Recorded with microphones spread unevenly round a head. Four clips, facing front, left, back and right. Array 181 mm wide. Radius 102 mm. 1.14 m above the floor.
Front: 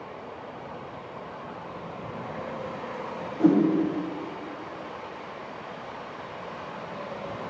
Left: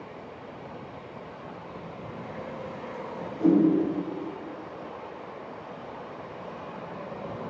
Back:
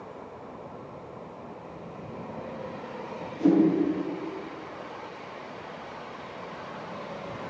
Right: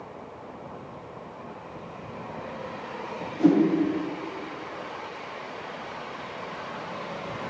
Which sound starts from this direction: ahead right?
A whoosh, at 3.4 s.